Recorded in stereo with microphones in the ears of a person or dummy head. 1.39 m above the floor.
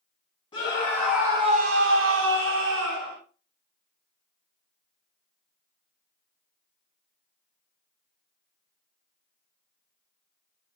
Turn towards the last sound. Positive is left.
turn(degrees=-70)  # may be behind; listen again after turning